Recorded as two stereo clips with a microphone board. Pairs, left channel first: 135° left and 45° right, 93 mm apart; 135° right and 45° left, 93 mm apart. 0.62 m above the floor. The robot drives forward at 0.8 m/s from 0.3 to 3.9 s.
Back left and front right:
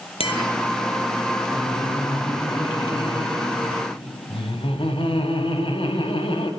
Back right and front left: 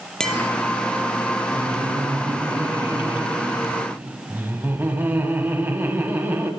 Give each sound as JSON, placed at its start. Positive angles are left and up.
{"t": 0.2, "sound": "tapping", "azimuth_deg": 140, "distance_m": 8.5}
{"t": 1.5, "sound": "laughter", "azimuth_deg": 90, "distance_m": 4.0}